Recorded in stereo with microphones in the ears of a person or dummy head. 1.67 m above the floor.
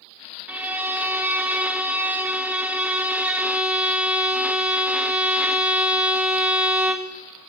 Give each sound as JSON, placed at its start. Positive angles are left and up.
{"t": 0.5, "sound": "a violin", "side_deg": -5, "distance_m": 0.6}